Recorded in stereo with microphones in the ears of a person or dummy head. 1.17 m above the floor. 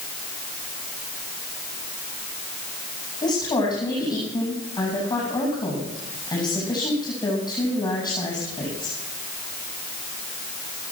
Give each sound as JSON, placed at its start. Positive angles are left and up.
{"t": 3.2, "sound": "a woman speaking", "side_deg": 25, "distance_m": 9.0}